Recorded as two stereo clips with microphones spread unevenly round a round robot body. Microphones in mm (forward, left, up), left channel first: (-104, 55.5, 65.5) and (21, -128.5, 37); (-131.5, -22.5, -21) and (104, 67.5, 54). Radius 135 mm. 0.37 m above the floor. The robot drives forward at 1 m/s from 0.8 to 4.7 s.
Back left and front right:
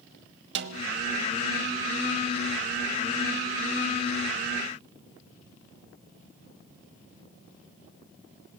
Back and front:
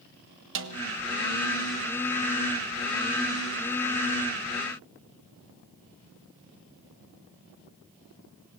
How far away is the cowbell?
No cowbell in this recording.